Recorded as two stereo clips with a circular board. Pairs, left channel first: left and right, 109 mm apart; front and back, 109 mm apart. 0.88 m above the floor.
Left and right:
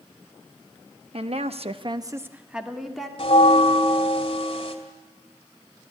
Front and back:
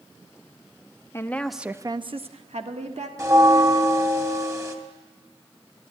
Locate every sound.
1.1 s a woman speaking: 65° right, 1.0 m; by 3.1 s 175° left, 1.8 m
3.2 s a bell: 120° left, 2.0 m